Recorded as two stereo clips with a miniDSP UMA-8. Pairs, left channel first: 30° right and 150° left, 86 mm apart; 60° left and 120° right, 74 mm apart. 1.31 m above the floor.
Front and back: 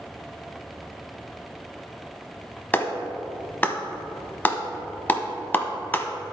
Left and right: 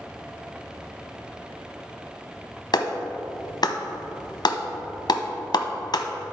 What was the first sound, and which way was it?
A clap, 40° left.